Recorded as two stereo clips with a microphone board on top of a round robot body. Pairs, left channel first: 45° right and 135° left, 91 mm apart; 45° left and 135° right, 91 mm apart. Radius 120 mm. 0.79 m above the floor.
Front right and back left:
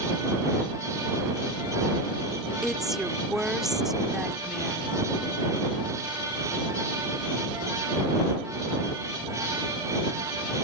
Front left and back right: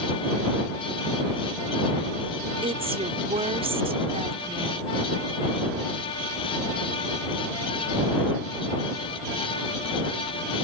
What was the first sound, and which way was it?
A woman speaking, 140° right.